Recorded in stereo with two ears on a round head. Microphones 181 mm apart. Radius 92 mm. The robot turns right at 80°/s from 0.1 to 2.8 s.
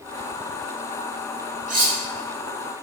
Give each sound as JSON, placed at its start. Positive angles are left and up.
{"t": 1.7, "sound": "cutlery clinking", "side_deg": -40, "distance_m": 1.1}